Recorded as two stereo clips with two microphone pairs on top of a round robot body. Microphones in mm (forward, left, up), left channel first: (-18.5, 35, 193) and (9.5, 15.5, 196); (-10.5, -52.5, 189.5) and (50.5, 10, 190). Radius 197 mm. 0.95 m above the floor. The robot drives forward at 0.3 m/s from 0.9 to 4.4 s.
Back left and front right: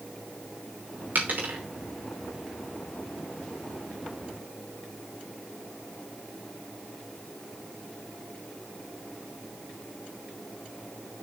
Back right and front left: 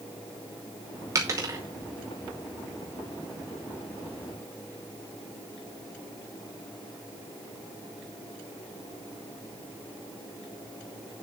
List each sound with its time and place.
1.1 s a dropped coin: 5° right, 0.9 m; by 1.6 s 10° right, 0.8 m